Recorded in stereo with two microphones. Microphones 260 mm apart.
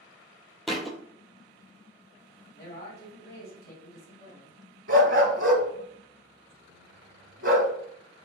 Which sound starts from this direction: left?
A man speaking, at 2.5 s.